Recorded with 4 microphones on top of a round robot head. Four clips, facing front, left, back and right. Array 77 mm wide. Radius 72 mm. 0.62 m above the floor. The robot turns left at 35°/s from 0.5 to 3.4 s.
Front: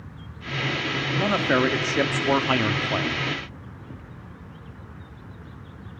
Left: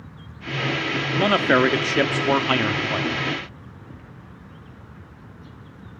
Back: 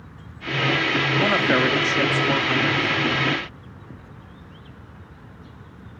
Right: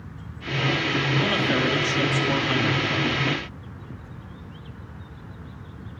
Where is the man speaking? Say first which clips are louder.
Left 9 dB, back 1 dB; 105° left, 1.5 m; by 3.1 s 35° left, 1.5 m.